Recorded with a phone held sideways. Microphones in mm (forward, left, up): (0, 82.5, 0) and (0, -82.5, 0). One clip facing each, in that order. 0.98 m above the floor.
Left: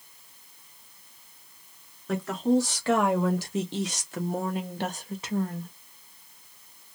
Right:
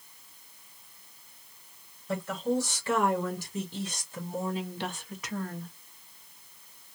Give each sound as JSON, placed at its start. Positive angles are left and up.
{"t": 2.1, "sound": "a woman speaking", "side_deg": 80, "distance_m": 1.7}